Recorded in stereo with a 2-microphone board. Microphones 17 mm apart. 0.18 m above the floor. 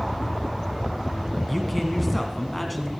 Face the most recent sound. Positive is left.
turn(degrees=0)  # may be behind; listen again after turning